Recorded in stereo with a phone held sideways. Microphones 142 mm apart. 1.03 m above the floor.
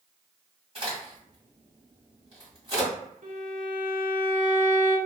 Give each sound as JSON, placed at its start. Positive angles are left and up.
{"t": 0.8, "sound": "a crack", "side_deg": -40, "distance_m": 1.7}
{"t": 3.2, "sound": "a violin", "side_deg": -65, "distance_m": 0.8}